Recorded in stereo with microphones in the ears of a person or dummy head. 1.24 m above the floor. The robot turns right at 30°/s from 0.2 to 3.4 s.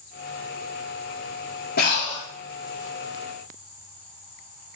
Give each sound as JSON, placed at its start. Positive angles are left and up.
{"t": 1.8, "sound": "breathing", "side_deg": 60, "distance_m": 4.5}